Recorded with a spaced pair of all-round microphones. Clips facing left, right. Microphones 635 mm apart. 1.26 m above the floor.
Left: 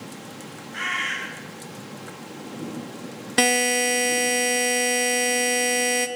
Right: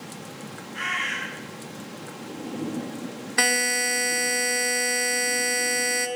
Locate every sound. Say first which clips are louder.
0.7 s a bird: even; 85° left, 5 m
3.4 s a buzzer: left 7 dB; 60° left (ahead or behind), 0.9 m